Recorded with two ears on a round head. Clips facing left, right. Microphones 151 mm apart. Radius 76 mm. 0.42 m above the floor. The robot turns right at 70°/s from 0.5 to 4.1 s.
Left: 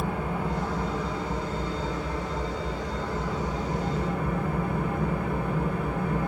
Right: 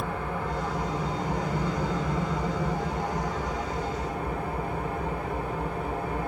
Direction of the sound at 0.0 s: 165° left.